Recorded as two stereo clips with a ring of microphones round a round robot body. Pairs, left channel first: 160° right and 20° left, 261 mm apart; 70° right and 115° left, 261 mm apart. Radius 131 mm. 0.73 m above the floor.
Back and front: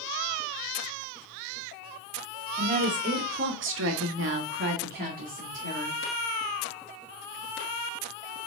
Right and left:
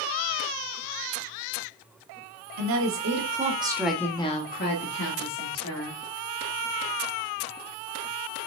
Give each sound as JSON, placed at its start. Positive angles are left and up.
{"t": 2.6, "sound": "a woman speaking", "azimuth_deg": 90, "distance_m": 2.5}